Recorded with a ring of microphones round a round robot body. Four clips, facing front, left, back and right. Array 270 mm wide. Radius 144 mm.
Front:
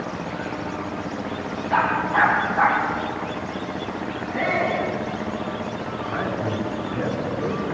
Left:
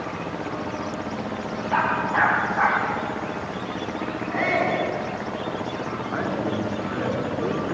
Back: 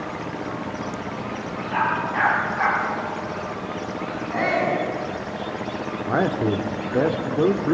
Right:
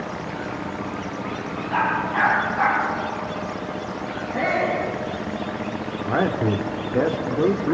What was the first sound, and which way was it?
A dog barking, 30° left.